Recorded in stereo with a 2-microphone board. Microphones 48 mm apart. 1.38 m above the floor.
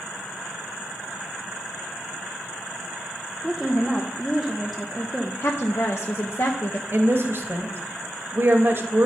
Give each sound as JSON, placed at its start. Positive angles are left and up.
{"t": 3.4, "sound": "a woman speaking", "side_deg": 5, "distance_m": 0.8}
{"t": 5.4, "sound": "a woman speaking", "side_deg": 60, "distance_m": 0.8}
{"t": 6.9, "sound": "a woman speaking", "side_deg": -55, "distance_m": 1.3}